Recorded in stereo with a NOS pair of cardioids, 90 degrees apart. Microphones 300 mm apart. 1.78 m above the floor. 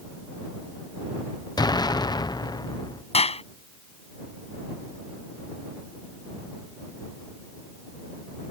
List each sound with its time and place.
1.6 s an explosion: 15° left
3.1 s a clap: 20° left